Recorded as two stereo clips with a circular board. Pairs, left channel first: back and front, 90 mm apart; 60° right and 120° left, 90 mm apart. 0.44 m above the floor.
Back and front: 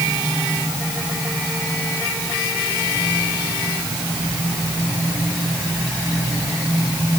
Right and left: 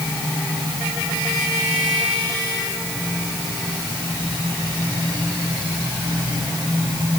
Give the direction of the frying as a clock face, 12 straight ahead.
I don't hear frying.